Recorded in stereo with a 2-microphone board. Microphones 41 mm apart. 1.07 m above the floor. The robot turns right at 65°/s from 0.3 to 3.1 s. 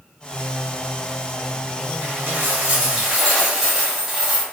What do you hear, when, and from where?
2.0 s a dropped coin: 75° right, 1.1 m; by 4.4 s 5° right, 1.1 m